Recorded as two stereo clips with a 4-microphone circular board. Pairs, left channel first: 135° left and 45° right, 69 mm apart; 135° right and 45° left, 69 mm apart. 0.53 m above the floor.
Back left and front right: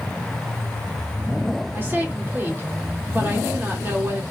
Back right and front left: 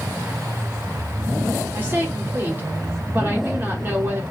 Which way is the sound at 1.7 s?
Straight ahead.